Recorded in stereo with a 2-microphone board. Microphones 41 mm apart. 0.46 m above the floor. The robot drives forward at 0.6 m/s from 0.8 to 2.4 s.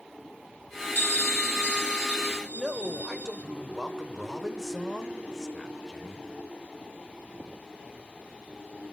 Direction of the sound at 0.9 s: 65° left (ahead or behind).